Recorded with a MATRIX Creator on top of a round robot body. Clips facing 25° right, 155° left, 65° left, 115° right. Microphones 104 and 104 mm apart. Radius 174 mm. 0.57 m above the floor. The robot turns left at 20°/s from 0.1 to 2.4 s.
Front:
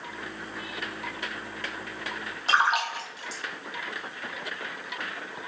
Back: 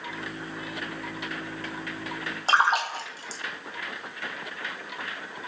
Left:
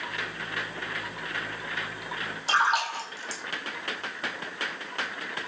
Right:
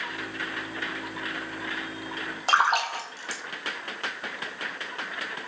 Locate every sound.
2.5 s a splash: 145° right, 0.9 m